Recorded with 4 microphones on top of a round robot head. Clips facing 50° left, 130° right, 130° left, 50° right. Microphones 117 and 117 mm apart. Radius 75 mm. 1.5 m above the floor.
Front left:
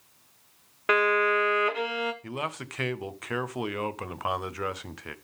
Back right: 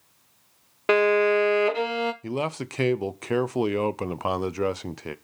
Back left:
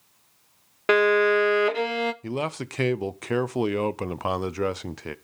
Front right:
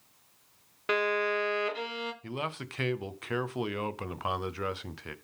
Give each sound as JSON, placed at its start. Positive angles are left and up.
{"t": 0.9, "sound": "a violin", "azimuth_deg": 170, "distance_m": 0.7}
{"t": 2.2, "sound": "a man speaking", "azimuth_deg": 175, "distance_m": 0.7}